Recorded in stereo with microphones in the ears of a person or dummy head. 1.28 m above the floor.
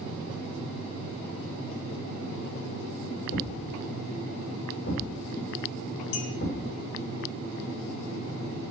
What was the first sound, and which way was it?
A thud, 50° left (ahead or behind).